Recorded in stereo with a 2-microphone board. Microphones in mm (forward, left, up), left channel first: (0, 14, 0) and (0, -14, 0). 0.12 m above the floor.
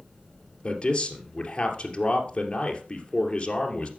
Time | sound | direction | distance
0.6 | a man speaking | 30° left (ahead or behind) | 2.5 m